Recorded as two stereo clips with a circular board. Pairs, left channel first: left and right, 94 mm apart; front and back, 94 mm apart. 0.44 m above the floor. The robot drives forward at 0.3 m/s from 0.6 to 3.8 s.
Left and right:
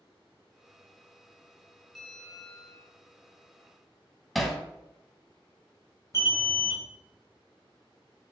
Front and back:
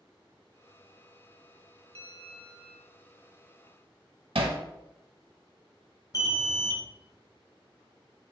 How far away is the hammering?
About 0.6 m.